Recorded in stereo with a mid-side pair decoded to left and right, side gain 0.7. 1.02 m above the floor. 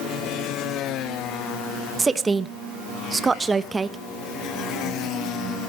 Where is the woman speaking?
15° right, 0.8 m.